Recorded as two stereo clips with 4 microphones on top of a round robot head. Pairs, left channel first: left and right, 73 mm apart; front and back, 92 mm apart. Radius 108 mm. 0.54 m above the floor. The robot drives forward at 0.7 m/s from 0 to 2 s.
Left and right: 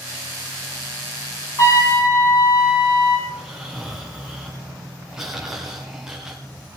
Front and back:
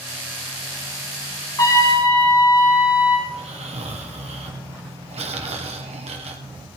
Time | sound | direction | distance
1.6 | a trumpet | 50° left | 4.5 m
3.3 | snoring | 175° right | 1.5 m